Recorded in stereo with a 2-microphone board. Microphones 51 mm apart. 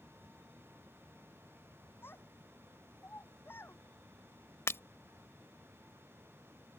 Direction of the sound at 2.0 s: 45° left (ahead or behind).